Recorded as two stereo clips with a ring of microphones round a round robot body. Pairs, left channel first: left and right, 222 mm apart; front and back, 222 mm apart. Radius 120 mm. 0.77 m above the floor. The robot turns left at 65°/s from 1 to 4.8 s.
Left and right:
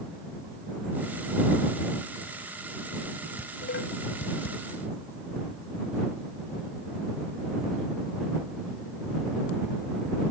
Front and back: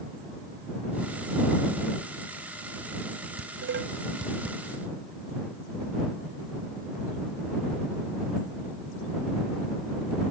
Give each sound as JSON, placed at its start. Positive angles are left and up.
{"t": 3.4, "sound": "dishes clattering", "azimuth_deg": 165}